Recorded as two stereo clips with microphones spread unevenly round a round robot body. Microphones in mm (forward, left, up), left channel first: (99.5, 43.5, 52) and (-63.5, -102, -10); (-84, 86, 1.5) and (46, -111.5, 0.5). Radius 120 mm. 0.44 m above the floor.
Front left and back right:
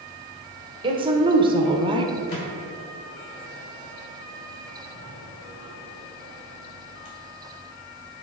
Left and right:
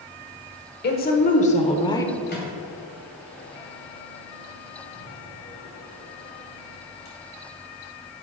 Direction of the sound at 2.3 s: 75° left.